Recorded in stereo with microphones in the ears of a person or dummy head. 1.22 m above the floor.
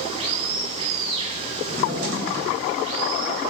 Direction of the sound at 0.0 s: 40° right (ahead or behind).